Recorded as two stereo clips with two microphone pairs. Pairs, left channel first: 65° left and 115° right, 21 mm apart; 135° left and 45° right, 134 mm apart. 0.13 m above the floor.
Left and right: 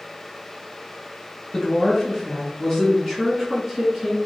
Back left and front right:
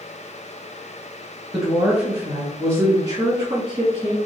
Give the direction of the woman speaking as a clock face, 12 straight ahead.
11 o'clock.